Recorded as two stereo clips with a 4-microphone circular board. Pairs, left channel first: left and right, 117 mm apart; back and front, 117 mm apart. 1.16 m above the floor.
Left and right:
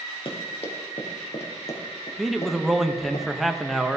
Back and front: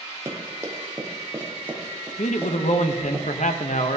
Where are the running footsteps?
60° left, 2 m; by 3.2 s 80° left, 3.5 m.